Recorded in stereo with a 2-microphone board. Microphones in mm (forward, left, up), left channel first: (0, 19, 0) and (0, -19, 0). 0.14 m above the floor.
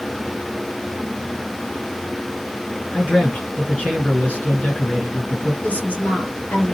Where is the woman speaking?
50° left (ahead or behind), 1.6 m.